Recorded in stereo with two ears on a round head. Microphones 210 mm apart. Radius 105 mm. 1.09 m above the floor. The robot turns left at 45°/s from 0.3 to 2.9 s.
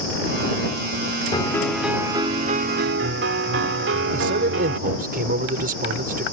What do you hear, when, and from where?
1.3 s a piano: 20° left; by 4.8 s 50° right
4.1 s a man speaking: 40° right (ahead or behind)